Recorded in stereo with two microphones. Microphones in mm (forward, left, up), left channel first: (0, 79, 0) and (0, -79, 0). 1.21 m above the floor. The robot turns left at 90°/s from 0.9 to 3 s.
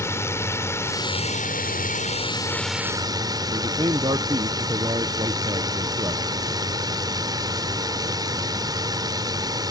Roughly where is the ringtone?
I don't hear a ringtone.